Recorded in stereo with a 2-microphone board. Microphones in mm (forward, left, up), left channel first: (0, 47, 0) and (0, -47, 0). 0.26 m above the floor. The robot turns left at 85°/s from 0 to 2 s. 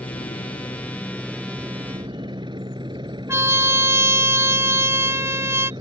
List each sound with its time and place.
0.0 s a helicopter: 110° left; by 5.8 s 60° right
3.3 s a trumpet: 30° right (ahead or behind)